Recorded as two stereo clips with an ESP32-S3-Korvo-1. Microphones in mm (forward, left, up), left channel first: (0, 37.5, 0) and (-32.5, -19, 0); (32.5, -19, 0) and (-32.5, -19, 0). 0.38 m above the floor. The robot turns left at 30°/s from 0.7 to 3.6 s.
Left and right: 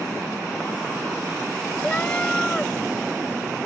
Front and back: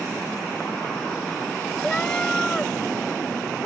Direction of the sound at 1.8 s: 50° left.